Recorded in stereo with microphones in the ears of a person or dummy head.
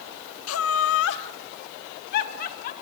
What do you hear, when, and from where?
0.5 s laughter: 85° left, 1.2 m; by 2.7 s 50° left (ahead or behind), 3.5 m